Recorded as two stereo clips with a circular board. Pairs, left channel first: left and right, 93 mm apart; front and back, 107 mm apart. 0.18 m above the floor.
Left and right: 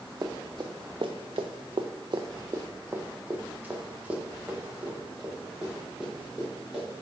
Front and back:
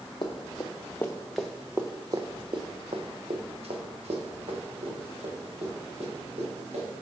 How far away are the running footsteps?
About 1.0 m.